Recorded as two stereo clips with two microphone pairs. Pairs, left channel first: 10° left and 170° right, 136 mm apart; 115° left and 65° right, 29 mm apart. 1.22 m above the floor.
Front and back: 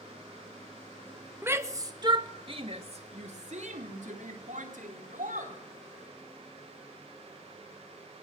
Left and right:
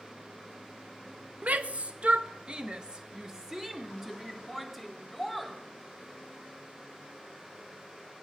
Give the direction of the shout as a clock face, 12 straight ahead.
3 o'clock.